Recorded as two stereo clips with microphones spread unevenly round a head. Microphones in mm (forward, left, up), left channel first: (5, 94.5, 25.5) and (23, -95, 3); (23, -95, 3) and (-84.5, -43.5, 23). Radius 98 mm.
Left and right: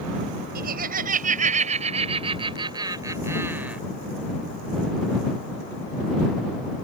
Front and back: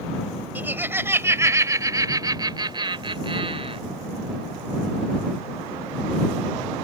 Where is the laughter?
130° right; by 3.8 s 170° right.